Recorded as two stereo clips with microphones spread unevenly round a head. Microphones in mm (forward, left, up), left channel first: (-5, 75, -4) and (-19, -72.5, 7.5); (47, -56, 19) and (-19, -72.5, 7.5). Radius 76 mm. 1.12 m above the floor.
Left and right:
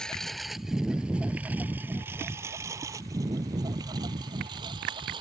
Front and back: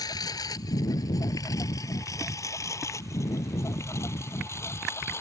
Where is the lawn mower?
Straight ahead; by 5.2 s 35° right.